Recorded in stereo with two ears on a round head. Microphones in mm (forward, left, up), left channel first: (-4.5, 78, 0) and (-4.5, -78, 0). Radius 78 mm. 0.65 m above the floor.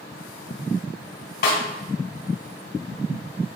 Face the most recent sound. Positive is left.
turn(degrees=55)  # may be behind; listen again after turning